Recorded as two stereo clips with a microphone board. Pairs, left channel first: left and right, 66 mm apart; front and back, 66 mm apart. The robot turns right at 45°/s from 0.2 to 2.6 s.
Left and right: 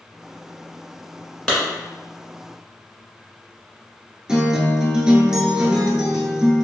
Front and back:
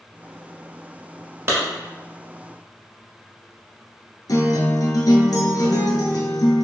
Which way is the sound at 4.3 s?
10° right.